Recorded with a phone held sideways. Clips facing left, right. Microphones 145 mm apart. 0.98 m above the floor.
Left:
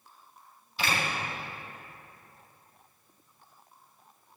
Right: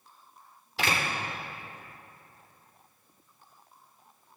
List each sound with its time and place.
0.8 s a door slam: 75° right (ahead or behind), 2.5 m